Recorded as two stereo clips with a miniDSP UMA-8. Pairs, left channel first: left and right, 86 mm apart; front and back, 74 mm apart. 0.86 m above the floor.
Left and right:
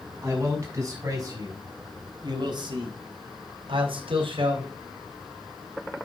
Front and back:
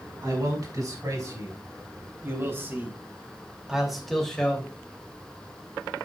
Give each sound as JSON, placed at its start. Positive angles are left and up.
{"t": 0.2, "sound": "a man speaking", "azimuth_deg": -145, "distance_m": 6.0}